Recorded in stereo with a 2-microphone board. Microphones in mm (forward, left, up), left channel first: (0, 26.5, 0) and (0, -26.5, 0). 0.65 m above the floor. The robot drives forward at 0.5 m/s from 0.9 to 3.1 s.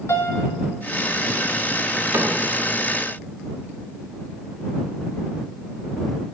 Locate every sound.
0.1 s a piano: 55° left (ahead or behind), 0.7 m
2.1 s a cupboard door: 50° right (ahead or behind), 0.6 m; by 2.4 s 45° right (ahead or behind), 0.7 m